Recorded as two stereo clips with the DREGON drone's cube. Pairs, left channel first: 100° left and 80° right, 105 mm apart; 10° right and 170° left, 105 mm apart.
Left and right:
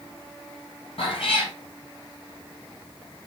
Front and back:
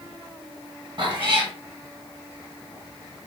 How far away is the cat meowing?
About 1.2 m.